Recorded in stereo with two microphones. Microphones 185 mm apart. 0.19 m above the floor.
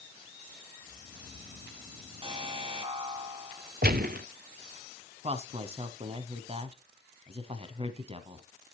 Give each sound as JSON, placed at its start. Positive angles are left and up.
{"t": 0.8, "sound": "snoring", "side_deg": 75, "distance_m": 3.5}
{"t": 2.2, "sound": "an alarm", "side_deg": -25, "distance_m": 2.0}
{"t": 3.8, "sound": "a gunshot", "side_deg": -55, "distance_m": 0.5}
{"t": 5.2, "sound": "a woman speaking", "side_deg": -30, "distance_m": 1.2}